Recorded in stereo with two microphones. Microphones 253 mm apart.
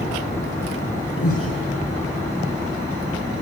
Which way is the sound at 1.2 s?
65° left (ahead or behind).